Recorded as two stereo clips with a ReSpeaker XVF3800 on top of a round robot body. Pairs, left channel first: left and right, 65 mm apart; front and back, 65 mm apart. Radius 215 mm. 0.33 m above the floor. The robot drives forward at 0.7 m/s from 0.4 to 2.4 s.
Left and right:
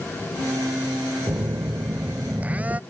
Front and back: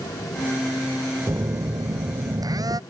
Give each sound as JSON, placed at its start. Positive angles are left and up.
{"t": 1.3, "sound": "a phone buzzing", "azimuth_deg": -135}